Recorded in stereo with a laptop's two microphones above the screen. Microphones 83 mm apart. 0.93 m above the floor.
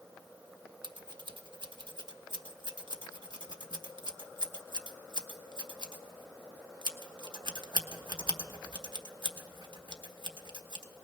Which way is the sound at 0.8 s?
75° right (ahead or behind).